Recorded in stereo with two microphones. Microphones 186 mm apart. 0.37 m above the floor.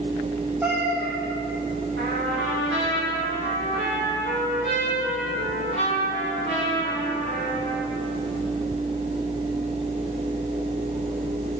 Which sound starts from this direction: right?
A trumpet, at 2.0 s.